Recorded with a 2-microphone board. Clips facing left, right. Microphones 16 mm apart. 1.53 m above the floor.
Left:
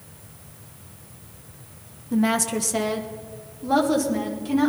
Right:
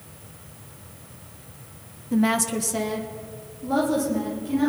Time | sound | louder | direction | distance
2.1 | a woman speaking | even | 15° right (ahead or behind) | 0.8 m